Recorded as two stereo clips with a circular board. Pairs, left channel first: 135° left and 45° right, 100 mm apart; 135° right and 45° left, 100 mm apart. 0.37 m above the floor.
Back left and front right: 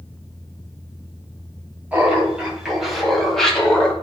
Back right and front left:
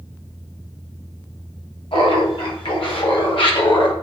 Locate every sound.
1.9 s laughter: 120° right, 3 m; by 3.9 s 145° right, 3 m